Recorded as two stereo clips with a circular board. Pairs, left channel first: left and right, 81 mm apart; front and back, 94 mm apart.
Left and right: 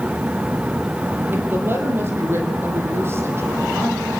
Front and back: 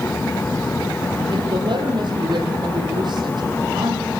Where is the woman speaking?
150° right, 6 m; by 4.1 s 145° right, 10 m.